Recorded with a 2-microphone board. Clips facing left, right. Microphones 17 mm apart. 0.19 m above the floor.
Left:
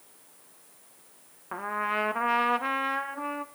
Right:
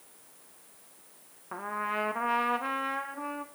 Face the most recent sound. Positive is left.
turn(degrees=15)  # may be behind; listen again after turning